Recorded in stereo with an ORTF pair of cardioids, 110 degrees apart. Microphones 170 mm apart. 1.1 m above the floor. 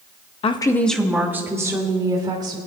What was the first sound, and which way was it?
A woman speaking, 35° left.